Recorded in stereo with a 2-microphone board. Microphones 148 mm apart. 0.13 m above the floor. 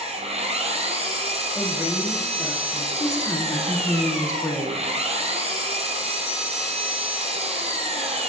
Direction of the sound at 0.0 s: 45° right (ahead or behind).